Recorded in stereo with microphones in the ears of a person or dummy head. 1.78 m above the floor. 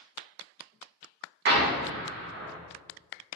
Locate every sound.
1.4 s an explosion: 60° right (ahead or behind), 0.5 m